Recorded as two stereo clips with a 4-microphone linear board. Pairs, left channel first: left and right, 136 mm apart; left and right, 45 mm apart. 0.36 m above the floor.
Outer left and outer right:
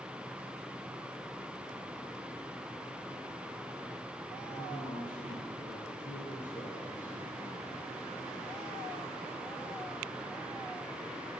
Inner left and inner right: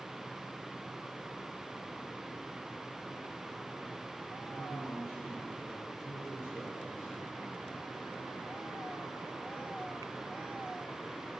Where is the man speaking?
65° left (ahead or behind), 6 m; by 7.9 s 70° left (ahead or behind), 4 m.